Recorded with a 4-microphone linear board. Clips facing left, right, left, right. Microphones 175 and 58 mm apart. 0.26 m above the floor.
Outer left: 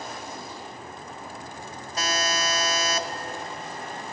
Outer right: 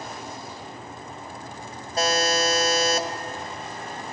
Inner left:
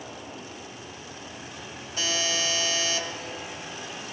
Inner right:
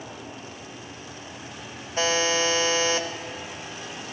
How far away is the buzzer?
About 1.1 m.